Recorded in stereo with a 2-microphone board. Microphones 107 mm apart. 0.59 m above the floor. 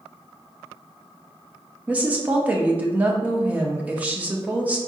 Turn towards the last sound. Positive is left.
turn(degrees=-15)  # may be behind; listen again after turning